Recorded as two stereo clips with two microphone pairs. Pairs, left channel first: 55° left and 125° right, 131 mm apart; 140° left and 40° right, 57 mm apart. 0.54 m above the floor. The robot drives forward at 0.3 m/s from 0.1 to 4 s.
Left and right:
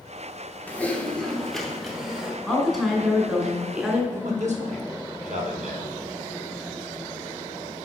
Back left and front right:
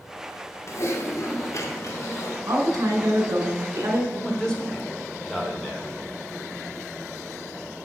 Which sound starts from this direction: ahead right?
A woman speaking, at 2.5 s.